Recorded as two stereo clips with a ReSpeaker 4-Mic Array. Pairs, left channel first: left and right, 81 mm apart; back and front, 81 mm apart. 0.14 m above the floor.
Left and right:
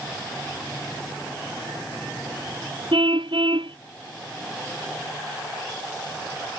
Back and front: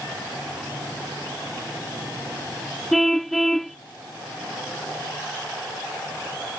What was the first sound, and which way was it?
A car horn, 90° right.